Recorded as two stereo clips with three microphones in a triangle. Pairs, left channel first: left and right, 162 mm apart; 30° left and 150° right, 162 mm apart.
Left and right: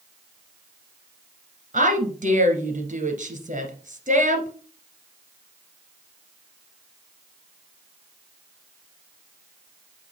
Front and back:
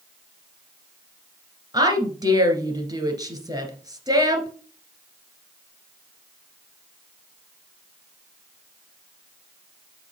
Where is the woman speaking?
90° right, 2 m.